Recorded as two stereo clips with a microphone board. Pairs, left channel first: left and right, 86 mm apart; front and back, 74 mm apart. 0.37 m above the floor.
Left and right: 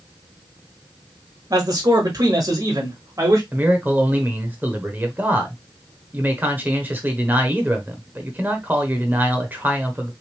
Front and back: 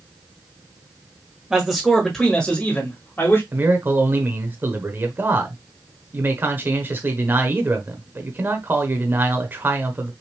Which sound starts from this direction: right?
A man speaking, at 1.5 s.